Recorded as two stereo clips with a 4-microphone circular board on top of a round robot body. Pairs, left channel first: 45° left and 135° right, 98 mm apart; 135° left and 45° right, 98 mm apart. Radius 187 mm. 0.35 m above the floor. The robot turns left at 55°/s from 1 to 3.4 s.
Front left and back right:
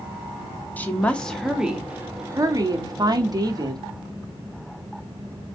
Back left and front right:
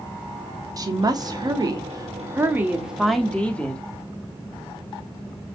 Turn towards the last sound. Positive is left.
turn(degrees=-155)